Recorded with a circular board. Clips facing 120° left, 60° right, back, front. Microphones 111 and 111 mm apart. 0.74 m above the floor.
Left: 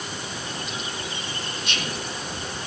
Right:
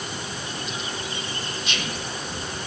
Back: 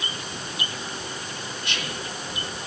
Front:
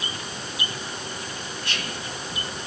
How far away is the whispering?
About 2.5 m.